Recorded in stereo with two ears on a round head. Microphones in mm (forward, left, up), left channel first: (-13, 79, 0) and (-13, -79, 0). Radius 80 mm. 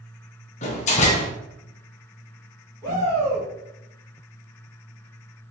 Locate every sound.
0.6 s a door slam: 40° left (ahead or behind), 0.6 m
2.8 s a shout: 15° left (ahead or behind), 1.9 m